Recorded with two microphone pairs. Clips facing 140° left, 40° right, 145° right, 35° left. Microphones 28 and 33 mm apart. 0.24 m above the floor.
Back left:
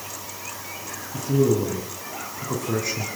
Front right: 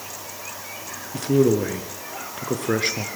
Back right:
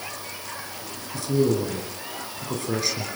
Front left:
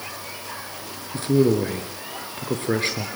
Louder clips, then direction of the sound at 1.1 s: Front right 2 dB, front left 3 dB; 15° right.